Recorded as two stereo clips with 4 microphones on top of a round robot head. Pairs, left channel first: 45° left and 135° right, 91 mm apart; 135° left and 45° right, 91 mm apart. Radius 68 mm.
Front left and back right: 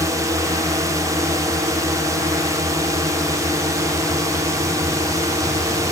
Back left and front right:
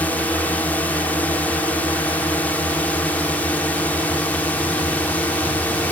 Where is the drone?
160° right.